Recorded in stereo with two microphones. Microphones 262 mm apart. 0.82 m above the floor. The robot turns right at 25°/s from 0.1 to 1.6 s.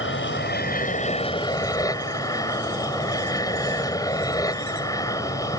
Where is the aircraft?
130° left; by 5.6 s 165° left.